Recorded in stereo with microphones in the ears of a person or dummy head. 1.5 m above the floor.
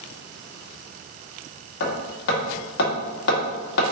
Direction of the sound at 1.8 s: 65° left (ahead or behind).